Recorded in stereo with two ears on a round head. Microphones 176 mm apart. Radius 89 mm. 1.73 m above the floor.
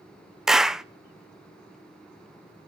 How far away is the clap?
About 0.6 m.